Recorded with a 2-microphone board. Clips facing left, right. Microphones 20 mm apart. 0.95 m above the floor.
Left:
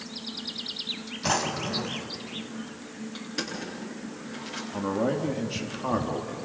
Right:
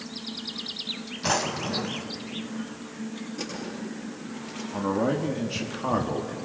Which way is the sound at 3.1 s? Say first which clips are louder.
Left 3 dB; 65° left (ahead or behind).